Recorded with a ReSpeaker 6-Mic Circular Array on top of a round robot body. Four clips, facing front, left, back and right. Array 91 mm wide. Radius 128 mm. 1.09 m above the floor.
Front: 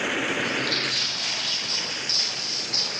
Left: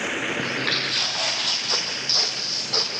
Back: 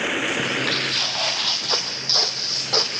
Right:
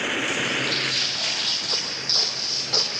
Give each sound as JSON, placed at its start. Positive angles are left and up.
{"t": 0.4, "sound": "footsteps", "azimuth_deg": 130, "distance_m": 1.3}